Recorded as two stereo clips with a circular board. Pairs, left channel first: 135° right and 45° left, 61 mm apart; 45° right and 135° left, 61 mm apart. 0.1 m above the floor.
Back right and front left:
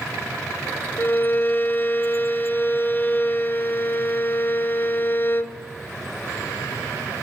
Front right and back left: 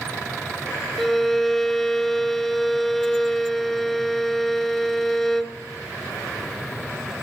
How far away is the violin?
About 0.5 m.